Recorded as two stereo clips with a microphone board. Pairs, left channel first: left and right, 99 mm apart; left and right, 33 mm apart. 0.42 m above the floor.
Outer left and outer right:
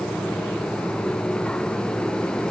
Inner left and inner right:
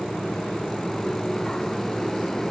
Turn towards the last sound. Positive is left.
No sound to turn to.